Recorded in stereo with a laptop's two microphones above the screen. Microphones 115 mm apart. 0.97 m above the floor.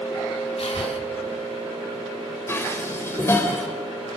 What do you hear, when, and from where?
0.6 s breathing: 60° left (ahead or behind), 2.0 m
2.5 s dishes clattering: 25° left (ahead or behind), 3 m